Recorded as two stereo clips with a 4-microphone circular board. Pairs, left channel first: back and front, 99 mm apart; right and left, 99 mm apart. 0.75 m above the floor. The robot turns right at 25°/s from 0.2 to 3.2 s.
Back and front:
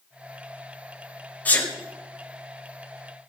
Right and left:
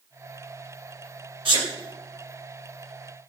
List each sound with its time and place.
1.4 s a sneeze: 105° left, 3 m; by 1.7 s 115° left, 3 m